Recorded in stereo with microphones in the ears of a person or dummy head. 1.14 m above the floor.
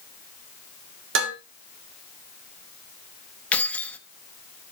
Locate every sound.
1.1 s dishes clattering: 85° right, 2.5 m
3.5 s keys jangling: 5° left (ahead or behind), 1.1 m